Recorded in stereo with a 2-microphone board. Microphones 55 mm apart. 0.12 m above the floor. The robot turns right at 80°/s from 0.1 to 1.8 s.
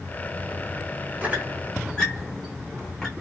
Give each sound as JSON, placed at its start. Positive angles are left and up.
{"t": 1.2, "sound": "a squeak", "side_deg": -30, "distance_m": 1.0}